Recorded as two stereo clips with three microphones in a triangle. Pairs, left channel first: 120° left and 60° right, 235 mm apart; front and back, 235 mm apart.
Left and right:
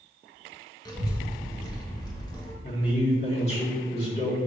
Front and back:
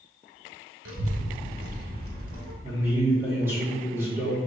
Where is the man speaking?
115° left, 1.4 m.